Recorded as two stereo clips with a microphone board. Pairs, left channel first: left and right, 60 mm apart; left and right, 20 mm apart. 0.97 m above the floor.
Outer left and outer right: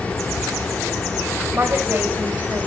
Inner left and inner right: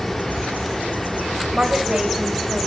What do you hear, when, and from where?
0.0 s running water: 25° left (ahead or behind), 1.9 m
1.5 s a woman speaking: 45° right (ahead or behind), 4 m